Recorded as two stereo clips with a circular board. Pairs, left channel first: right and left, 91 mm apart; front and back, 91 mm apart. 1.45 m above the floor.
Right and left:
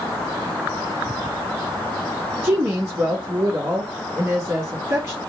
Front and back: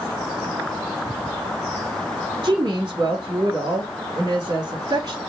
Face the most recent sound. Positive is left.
turn(degrees=150)